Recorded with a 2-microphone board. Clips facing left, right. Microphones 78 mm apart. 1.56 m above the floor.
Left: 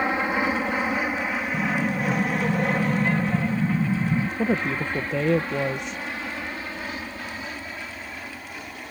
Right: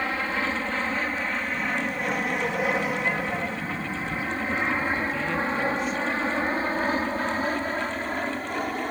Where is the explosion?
55° left (ahead or behind).